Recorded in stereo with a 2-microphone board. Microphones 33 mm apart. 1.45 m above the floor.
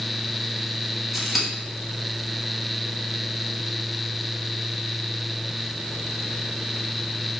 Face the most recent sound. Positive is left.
turn(degrees=-5)  # may be behind; listen again after turning